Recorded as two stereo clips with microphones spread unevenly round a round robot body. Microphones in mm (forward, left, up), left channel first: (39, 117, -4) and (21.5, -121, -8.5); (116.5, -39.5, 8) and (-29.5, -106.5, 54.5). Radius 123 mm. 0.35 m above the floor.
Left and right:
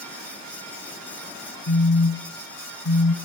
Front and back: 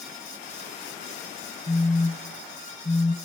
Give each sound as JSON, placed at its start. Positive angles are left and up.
{"t": 1.7, "sound": "a phone buzzing", "azimuth_deg": 85, "distance_m": 0.9}